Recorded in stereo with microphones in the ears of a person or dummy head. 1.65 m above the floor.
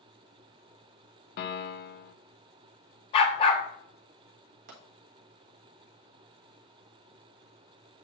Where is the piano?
50° left (ahead or behind), 0.8 m.